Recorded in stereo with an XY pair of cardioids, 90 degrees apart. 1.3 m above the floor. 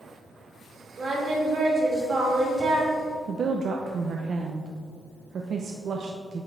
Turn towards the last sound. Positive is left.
turn(degrees=-60)